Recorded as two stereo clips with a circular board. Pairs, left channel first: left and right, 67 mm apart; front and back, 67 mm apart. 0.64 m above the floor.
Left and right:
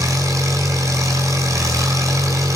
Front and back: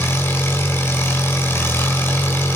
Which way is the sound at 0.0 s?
55° right.